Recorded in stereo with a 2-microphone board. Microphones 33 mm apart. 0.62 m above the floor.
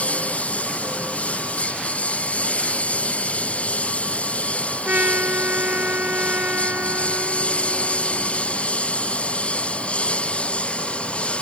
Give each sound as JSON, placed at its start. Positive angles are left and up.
{"t": 0.0, "sound": "a lawn mower", "side_deg": 45}
{"t": 4.8, "sound": "a trumpet", "side_deg": -60}